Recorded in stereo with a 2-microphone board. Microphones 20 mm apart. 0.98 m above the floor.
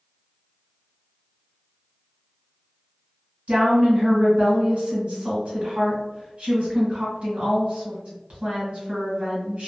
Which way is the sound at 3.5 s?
45° right (ahead or behind).